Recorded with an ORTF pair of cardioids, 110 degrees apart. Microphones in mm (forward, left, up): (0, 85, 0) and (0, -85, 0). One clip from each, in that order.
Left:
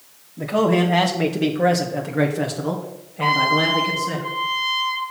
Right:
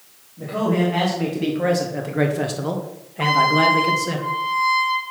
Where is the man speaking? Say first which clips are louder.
Left 3 dB; 50° left, 1.4 m; by 4.2 s 35° right, 2 m.